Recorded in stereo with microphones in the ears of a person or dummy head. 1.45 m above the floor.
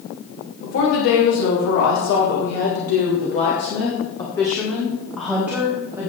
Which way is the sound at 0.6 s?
85° left.